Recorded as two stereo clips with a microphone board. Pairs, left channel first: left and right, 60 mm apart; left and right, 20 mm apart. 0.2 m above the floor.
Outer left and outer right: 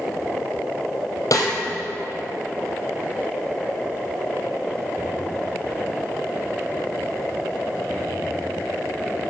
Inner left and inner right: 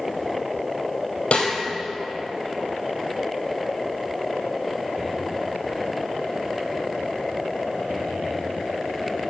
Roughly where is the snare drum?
Left.